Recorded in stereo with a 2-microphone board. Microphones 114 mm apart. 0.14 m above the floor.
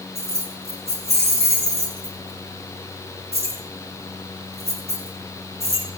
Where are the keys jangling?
70° right (ahead or behind), 6 m.